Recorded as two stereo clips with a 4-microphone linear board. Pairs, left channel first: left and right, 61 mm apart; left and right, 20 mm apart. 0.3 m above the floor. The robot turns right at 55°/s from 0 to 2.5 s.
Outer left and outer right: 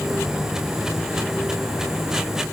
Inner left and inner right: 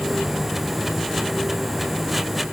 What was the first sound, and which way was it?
Only background noise.